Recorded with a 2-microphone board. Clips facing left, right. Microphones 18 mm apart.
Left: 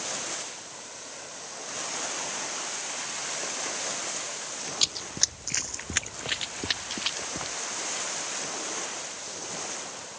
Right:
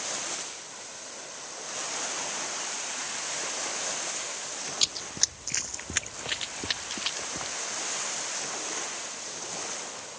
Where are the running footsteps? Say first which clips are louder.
Left 1 dB; centre (ahead or behind); by 7.5 s 5° left (ahead or behind).